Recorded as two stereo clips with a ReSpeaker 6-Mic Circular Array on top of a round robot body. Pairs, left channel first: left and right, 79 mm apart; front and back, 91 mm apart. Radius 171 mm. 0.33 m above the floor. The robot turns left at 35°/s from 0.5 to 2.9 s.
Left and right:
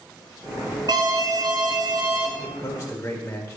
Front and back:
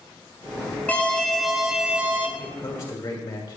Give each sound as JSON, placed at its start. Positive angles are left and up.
{"t": 0.9, "sound": "an alarm", "azimuth_deg": -70, "distance_m": 1.7}
{"t": 2.4, "sound": "a man speaking", "azimuth_deg": 70, "distance_m": 3.0}